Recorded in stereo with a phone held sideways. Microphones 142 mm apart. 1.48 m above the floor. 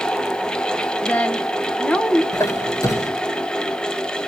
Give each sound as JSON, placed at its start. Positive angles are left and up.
{"t": 0.0, "sound": "a fan", "side_deg": 5, "distance_m": 0.8}
{"t": 1.0, "sound": "a woman speaking", "side_deg": 10, "distance_m": 1.3}
{"t": 2.3, "sound": "a squeak", "side_deg": 20, "distance_m": 2.0}